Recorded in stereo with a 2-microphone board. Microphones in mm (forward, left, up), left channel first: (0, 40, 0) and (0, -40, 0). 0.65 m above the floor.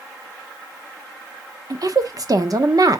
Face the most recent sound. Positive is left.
turn(degrees=-50)  # may be behind; listen again after turning